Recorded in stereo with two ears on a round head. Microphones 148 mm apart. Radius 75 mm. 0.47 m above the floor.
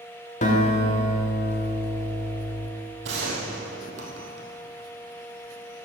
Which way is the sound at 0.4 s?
45° left (ahead or behind).